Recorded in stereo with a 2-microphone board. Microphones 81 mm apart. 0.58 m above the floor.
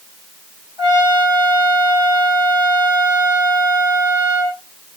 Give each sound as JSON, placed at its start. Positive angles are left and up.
{"t": 0.8, "sound": "a trumpet", "side_deg": -60, "distance_m": 6.5}